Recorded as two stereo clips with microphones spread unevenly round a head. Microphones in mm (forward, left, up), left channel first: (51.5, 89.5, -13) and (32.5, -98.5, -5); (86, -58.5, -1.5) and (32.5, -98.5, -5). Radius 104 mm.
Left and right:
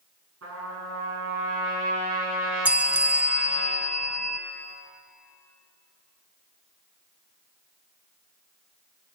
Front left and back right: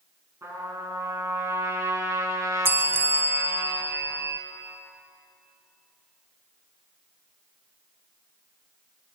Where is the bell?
170° right, 0.8 m.